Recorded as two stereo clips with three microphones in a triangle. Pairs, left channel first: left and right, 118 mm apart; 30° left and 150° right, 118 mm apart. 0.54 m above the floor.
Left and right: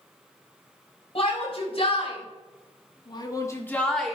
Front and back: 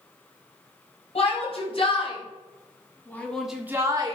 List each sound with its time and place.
1.1 s a shout: 55° left, 4 m; by 4.2 s 175° right, 1.7 m